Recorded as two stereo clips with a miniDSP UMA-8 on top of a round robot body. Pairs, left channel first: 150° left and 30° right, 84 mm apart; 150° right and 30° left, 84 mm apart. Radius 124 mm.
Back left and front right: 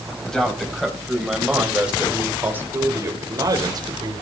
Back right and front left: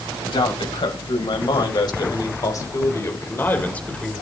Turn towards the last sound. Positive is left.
turn(degrees=-65)